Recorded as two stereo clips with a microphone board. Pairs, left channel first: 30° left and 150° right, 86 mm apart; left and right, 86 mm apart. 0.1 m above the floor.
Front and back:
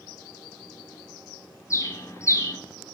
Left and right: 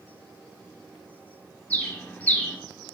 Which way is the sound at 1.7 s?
35° left.